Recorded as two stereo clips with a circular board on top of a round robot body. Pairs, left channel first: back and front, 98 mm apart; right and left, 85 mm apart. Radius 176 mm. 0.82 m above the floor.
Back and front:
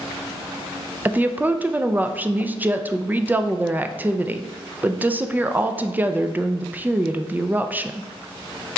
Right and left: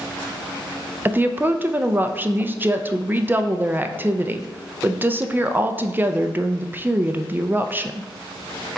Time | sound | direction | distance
1.1 | a woman speaking | 50° left | 0.5 m